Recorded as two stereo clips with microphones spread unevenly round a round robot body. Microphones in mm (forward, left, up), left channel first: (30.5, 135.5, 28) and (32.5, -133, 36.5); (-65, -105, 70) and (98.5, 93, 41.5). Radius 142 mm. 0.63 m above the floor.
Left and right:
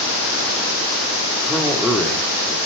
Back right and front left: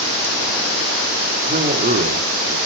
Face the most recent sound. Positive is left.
turn(degrees=0)